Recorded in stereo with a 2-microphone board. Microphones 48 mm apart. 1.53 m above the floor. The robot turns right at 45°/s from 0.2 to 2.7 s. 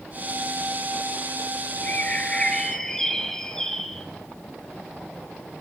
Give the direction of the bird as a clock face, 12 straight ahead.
8 o'clock.